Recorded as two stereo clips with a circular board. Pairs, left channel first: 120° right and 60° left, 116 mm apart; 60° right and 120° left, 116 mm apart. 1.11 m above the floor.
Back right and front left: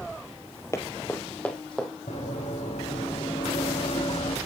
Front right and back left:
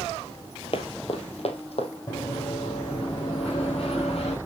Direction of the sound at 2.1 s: 110° right.